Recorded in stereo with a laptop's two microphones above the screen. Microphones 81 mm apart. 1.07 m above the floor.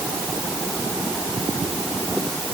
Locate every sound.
Only background noise.